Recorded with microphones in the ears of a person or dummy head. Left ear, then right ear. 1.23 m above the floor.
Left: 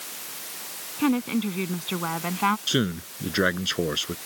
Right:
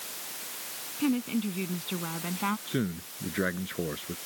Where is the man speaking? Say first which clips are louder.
Left 8 dB; 85° left.